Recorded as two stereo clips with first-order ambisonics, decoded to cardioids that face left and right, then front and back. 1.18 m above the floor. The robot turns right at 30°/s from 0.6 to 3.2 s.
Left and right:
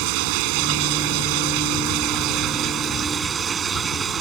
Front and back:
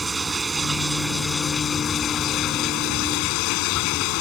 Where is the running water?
100° right; by 4.2 s 25° right.